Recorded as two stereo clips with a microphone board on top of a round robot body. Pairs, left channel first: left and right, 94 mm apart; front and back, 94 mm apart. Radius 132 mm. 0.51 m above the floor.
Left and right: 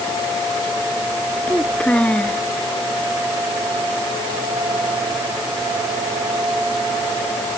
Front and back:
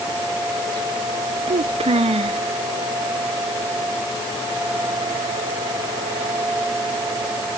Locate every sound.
1.5 s a child speaking: 170° left